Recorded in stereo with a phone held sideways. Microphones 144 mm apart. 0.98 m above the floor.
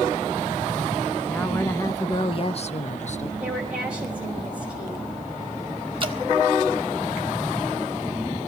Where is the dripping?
35° right (ahead or behind), 1.5 m.